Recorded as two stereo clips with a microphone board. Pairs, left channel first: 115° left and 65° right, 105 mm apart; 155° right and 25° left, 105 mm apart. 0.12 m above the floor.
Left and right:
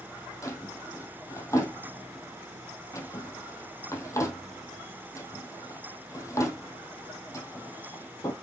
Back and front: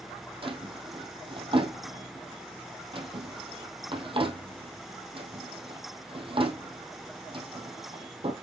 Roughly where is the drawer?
Ahead left.